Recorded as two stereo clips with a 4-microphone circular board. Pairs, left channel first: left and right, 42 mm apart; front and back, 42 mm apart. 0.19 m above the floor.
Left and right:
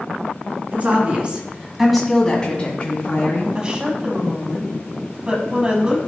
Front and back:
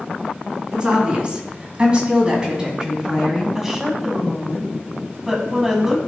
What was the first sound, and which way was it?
A woman speaking, 120° right.